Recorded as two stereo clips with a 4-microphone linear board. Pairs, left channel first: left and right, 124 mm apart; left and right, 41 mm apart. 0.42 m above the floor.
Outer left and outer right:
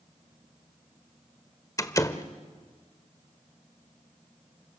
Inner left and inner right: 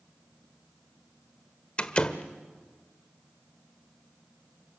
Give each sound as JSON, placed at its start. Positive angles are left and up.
{"t": 1.8, "sound": "a door slam", "side_deg": 25, "distance_m": 1.3}